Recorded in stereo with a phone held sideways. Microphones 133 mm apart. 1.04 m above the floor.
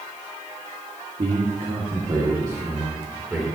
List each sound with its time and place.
1.2 s a man speaking: 65° right (ahead or behind), 2 m; by 3.5 s 10° right (ahead or behind), 3.5 m